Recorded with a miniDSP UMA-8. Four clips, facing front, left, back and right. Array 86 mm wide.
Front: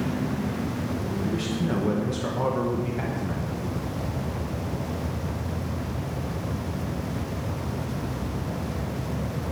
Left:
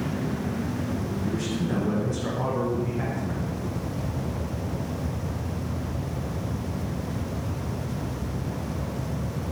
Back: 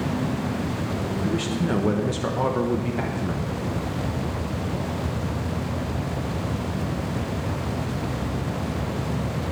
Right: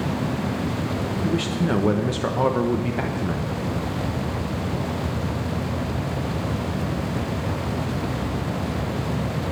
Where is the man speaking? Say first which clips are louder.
Right 6 dB, back 3 dB; 110° right, 1.0 m.